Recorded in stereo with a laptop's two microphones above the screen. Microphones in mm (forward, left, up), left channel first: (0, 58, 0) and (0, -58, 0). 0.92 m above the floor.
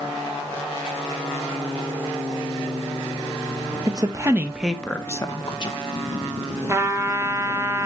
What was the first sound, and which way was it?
A woman speaking, 35° right (ahead or behind).